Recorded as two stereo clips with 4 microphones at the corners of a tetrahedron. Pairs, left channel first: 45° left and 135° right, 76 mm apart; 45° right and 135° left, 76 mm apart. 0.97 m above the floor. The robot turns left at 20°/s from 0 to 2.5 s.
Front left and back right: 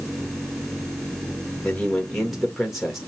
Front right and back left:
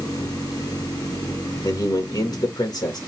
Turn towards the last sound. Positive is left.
turn(degrees=-50)